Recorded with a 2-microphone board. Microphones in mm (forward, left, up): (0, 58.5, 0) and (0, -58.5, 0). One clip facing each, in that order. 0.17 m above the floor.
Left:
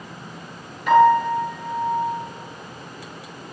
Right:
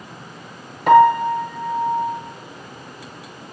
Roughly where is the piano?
Right.